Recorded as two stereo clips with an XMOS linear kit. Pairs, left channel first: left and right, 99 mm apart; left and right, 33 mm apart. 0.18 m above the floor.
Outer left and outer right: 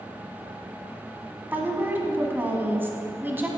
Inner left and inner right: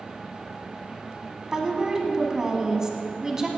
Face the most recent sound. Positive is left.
turn(degrees=-20)  # may be behind; listen again after turning